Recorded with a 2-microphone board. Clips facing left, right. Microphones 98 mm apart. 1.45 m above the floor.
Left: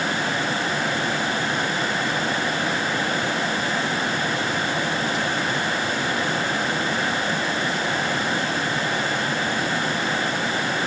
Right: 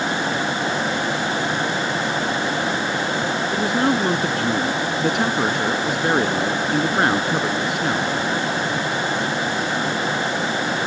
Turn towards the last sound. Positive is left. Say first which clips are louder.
# right 5 dB
turn(degrees=-75)  # may be behind; listen again after turning